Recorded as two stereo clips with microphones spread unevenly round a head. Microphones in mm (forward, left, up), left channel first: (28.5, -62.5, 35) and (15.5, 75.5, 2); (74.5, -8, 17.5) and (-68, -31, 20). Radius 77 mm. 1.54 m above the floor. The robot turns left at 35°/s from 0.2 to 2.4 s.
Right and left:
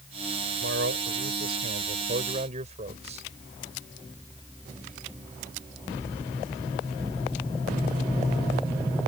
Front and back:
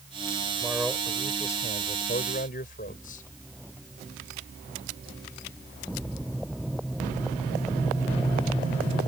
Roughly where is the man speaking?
Behind left.